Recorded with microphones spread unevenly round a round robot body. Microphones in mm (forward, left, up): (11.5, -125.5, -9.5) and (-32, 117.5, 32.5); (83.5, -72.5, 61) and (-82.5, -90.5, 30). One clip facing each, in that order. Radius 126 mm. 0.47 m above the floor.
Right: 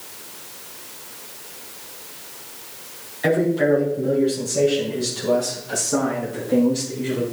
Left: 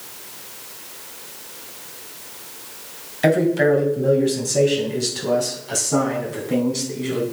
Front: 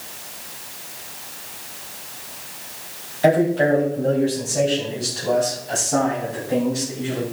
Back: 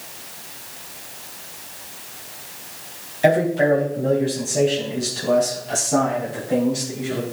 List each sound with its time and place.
3.2 s a man speaking: 110° left, 3 m; by 7.2 s 125° left, 5 m